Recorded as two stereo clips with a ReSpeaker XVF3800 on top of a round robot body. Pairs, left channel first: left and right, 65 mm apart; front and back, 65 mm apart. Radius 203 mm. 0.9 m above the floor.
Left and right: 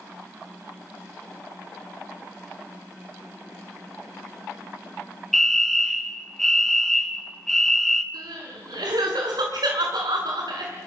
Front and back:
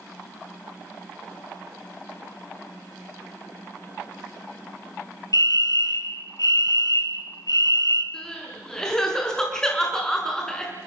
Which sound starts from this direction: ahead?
A fire alarm, at 5.3 s.